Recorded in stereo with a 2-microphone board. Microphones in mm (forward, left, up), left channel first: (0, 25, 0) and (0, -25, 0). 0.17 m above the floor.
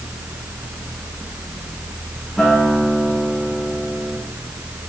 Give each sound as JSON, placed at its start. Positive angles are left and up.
{"t": 2.4, "sound": "a guitar", "side_deg": 5, "distance_m": 8.5}